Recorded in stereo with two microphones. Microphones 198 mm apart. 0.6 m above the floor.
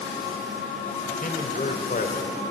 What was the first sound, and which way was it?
A man speaking, 45° left (ahead or behind).